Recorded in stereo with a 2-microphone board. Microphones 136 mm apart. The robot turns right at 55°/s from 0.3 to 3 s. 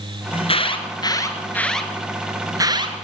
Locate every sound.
0.3 s an alarm: 45° left (ahead or behind), 2 m; by 2.9 s 35° right (ahead or behind), 2 m